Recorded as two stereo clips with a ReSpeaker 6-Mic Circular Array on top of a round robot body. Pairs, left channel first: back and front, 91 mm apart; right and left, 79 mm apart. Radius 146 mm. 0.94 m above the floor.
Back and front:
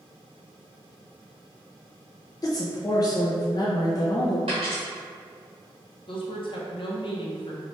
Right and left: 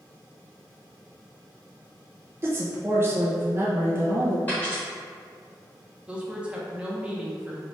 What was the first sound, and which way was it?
A woman speaking, 140° left.